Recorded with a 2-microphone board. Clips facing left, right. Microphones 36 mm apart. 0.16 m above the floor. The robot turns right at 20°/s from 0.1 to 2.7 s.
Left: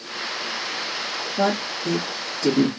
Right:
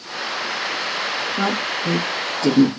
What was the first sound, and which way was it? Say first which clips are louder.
A woman speaking: left 2 dB; 35° right (ahead or behind).